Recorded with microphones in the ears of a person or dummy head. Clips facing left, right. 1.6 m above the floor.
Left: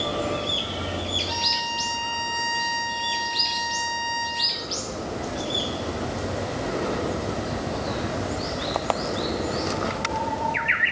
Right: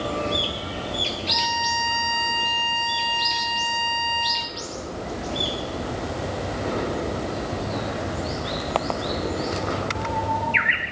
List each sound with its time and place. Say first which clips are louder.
1.3 s a violin: right 3 dB; 40° right (ahead or behind), 1.7 m